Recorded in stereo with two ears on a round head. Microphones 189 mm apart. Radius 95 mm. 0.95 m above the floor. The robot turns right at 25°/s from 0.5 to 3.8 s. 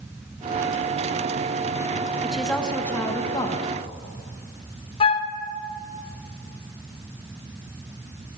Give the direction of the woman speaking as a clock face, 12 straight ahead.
12 o'clock.